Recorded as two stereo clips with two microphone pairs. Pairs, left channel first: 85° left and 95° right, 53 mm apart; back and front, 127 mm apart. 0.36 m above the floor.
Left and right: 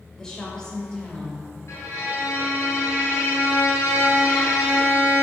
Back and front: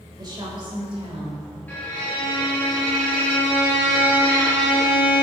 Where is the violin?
105° left, 2 m.